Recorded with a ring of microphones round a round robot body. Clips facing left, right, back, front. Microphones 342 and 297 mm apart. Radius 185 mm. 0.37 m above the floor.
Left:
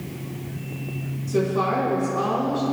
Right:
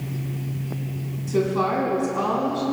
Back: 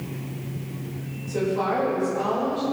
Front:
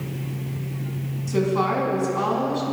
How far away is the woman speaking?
About 3.5 m.